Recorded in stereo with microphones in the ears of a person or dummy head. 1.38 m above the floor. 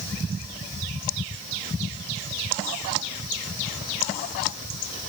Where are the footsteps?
No footsteps in this recording.